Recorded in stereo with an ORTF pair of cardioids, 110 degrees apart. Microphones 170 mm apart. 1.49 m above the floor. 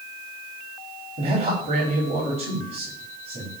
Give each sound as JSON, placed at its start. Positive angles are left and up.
{"t": 1.2, "sound": "a man speaking", "azimuth_deg": -45, "distance_m": 5.0}